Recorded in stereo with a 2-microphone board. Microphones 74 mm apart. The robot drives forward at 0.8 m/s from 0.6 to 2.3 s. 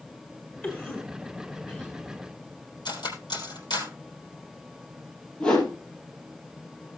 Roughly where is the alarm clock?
I don't hear an alarm clock.